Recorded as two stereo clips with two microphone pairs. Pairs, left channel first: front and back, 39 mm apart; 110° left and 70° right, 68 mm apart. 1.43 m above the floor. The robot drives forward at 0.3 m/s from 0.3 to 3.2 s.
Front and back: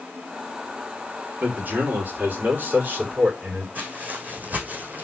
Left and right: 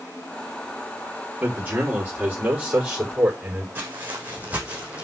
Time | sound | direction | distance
1.4 | a man speaking | 130° right | 5 m
3.8 | footsteps | 130° right | 4.5 m